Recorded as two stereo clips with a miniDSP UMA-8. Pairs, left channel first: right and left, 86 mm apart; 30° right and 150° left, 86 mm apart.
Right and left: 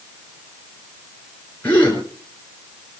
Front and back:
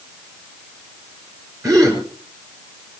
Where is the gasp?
160° right, 7 m.